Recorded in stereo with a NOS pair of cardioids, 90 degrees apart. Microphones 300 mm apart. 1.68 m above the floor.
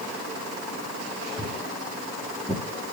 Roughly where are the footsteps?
Ahead.